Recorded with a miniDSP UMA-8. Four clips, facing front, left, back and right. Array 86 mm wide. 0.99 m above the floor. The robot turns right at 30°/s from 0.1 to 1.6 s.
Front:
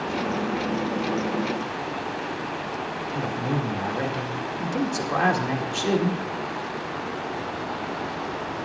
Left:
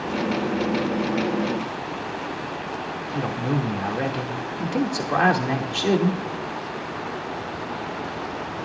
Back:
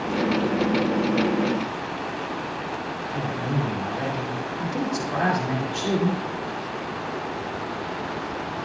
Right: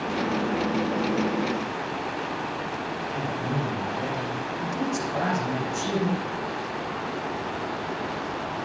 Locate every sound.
3.1 s a man speaking: 80° left, 2 m